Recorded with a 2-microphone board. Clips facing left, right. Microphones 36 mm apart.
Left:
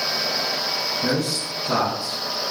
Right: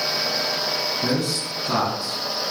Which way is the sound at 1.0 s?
5° right (ahead or behind).